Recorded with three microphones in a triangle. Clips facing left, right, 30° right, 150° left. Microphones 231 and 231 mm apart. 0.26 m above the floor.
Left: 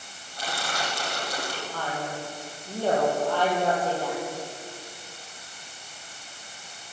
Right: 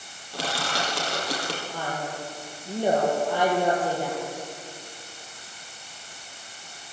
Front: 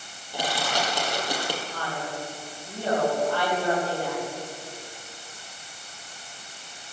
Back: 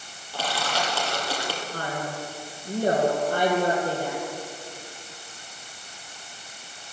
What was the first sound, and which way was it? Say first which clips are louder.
Crushing: right 3 dB, front 1 dB; 105° right.